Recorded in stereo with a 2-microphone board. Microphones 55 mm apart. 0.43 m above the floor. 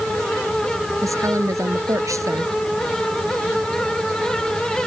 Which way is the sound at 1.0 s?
80° right.